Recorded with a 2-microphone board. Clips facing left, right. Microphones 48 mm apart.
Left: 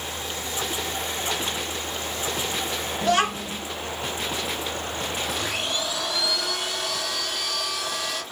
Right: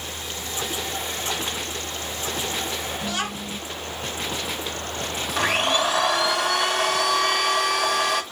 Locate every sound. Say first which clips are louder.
3.0 s a child speaking: left 6 dB; 75° left (ahead or behind), 2.5 m
5.4 s a blender: right 7 dB; 65° right (ahead or behind), 2.0 m